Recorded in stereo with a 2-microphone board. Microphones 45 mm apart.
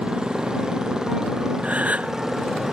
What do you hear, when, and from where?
0.0 s a motorcycle: 20° right (ahead or behind); by 2.7 s 10° right (ahead or behind)
1.6 s a gasp: 30° right (ahead or behind)